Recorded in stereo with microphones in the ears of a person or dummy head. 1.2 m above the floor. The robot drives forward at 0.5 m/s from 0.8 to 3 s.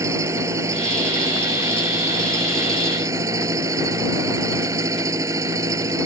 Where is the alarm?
No alarm in this recording.